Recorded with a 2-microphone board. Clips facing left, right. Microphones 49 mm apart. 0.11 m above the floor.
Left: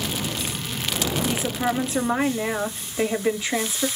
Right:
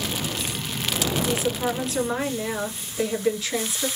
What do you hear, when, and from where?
1.2 s a woman speaking: 20° left (ahead or behind), 1.3 m